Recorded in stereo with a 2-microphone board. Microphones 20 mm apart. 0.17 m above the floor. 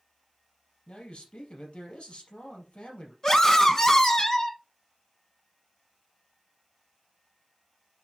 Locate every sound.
0.9 s a man speaking: 70° left (ahead or behind), 4 m
3.2 s a scream: 25° left (ahead or behind), 1.1 m